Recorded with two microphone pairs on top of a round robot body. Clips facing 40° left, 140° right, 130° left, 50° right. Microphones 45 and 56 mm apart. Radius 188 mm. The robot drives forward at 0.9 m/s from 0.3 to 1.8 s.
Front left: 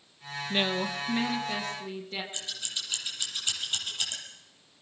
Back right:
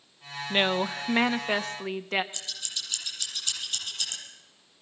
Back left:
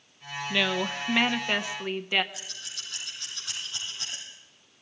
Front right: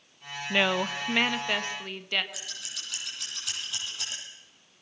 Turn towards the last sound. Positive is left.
turn(degrees=-30)